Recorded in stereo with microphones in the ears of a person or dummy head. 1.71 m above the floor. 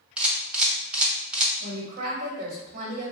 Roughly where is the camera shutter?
Centre.